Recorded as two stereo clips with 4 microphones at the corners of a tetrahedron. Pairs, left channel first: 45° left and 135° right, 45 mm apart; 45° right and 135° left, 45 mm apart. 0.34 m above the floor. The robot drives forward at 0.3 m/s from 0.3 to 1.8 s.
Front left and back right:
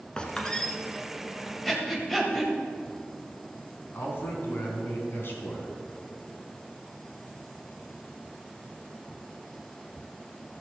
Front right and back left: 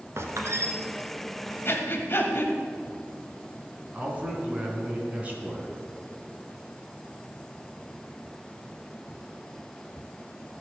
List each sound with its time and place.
0.2 s a squeak: 115° left, 1.4 m; by 0.7 s 120° left, 1.5 m
1.6 s breathing: 40° right, 1.9 m
3.9 s a man speaking: 75° left, 3 m